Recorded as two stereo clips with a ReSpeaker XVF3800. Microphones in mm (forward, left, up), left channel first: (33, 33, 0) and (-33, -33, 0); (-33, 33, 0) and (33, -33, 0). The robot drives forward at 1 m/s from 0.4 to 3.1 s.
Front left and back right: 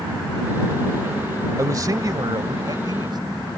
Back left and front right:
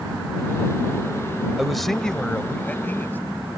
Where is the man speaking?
125° right; by 3.2 s 160° right.